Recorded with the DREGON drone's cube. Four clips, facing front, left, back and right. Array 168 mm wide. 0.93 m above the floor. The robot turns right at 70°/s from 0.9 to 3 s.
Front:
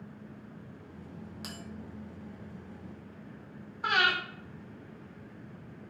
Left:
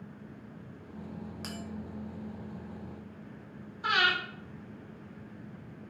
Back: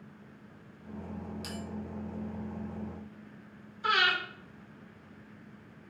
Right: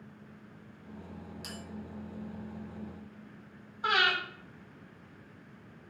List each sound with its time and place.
1.4 s a bell: 60° left, 0.5 m; by 1.6 s 70° left, 0.5 m
3.8 s breathing: 35° right, 0.9 m